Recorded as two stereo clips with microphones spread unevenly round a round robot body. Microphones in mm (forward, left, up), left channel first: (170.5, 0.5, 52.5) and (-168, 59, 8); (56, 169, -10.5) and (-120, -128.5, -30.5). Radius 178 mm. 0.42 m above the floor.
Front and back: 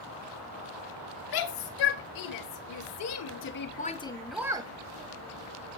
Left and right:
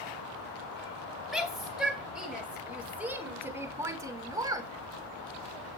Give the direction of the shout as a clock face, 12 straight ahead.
1 o'clock.